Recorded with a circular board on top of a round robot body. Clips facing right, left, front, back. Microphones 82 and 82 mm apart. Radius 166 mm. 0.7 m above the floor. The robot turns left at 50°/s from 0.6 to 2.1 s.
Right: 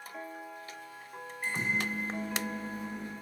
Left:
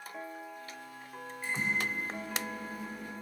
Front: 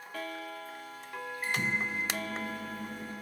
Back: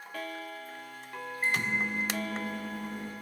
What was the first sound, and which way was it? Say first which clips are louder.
A microwave: right 1 dB, back 3 dB; 120° right.